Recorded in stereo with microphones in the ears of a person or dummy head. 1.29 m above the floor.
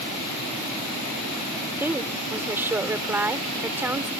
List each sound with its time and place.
1.8 s a woman speaking: 15° right (ahead or behind)